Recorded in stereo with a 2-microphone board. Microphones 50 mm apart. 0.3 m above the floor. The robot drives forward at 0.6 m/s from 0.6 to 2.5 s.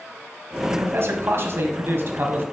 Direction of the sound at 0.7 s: 55° right (ahead or behind).